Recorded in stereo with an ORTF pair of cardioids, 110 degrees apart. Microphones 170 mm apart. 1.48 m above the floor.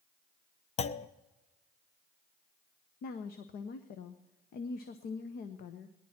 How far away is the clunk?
About 0.7 m.